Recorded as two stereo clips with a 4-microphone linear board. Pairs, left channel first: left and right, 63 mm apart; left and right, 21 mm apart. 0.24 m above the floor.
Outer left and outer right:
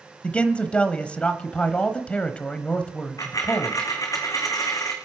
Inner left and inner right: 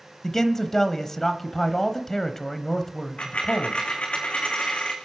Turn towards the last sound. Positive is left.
turn(degrees=60)  # may be behind; listen again after turning